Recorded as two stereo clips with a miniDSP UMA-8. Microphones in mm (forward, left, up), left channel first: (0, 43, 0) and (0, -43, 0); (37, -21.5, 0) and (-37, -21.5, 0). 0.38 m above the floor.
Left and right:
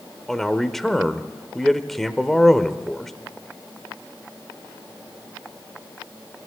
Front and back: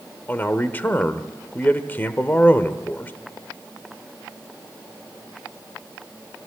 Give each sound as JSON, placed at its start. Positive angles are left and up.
{"t": 0.3, "sound": "a man speaking", "azimuth_deg": 10, "distance_m": 1.0}